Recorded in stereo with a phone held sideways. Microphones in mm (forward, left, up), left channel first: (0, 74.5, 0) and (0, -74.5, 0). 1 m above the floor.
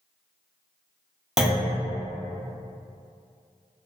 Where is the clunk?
Centre (ahead or behind), 0.5 m.